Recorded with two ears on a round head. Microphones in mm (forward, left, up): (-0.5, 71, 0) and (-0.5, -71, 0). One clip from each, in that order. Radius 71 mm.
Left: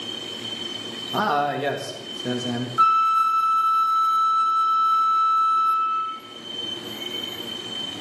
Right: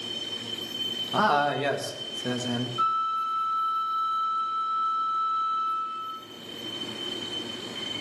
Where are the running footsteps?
I don't hear running footsteps.